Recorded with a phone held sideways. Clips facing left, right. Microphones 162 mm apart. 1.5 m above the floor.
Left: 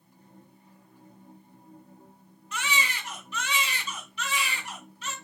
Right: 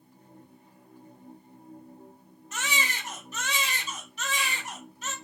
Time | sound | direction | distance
0.0 | a machine running | 10° right (ahead or behind) | 3 m
2.5 | a baby crying | 40° right (ahead or behind) | 2.5 m